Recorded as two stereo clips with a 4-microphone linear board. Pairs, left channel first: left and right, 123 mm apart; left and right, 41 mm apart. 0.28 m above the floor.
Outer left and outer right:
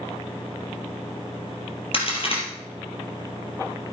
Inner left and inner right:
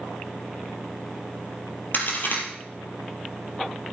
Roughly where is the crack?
Left.